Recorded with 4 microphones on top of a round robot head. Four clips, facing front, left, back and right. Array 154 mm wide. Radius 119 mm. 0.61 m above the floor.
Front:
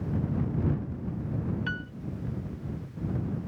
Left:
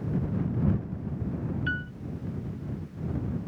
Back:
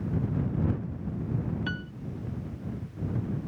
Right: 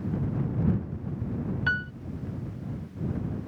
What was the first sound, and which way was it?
A piano, 100° right.